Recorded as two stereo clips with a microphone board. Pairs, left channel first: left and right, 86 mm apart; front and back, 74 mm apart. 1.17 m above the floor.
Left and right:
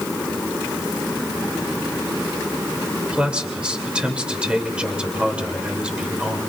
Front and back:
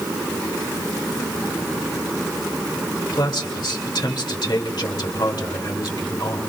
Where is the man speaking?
10° right, 2 m.